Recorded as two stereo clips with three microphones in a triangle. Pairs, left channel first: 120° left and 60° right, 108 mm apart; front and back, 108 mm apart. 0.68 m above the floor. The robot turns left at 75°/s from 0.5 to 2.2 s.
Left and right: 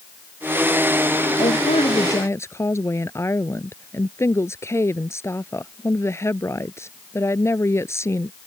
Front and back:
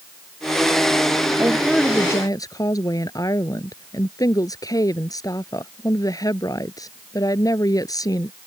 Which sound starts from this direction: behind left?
A woman speaking, at 1.4 s.